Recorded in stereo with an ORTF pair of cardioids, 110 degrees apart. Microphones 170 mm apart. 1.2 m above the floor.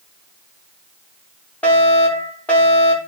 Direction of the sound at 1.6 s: 10° left.